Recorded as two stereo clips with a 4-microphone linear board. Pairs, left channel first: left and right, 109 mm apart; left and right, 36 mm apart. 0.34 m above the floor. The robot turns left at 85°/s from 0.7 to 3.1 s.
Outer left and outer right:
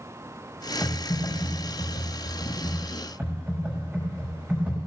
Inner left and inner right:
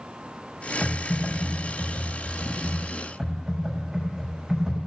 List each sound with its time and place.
0.8 s typing on a keyboard: straight behind, 5.5 m; by 4.8 s 15° right, 5.5 m